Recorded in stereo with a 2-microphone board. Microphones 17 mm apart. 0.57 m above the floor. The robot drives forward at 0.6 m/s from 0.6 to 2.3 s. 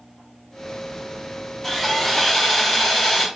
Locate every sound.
1.6 s sawing: 15° left (ahead or behind), 1.3 m; by 3.3 s 10° left (ahead or behind), 1.6 m